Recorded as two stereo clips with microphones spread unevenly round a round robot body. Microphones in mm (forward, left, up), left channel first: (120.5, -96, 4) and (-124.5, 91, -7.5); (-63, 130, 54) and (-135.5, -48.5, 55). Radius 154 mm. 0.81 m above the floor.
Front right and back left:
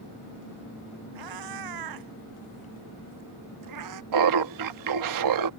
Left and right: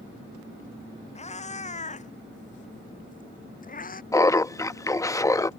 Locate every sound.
1.1 s a cat meowing: 120° left; by 4.0 s 110° left
4.1 s laughter: 140° left